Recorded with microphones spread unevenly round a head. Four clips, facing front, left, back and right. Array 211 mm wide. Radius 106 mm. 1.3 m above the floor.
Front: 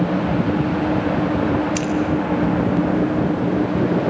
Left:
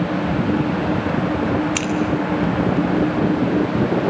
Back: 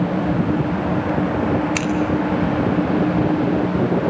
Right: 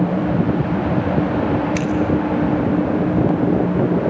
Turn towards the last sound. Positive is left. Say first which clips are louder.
# right 3 dB, even
turn(degrees=155)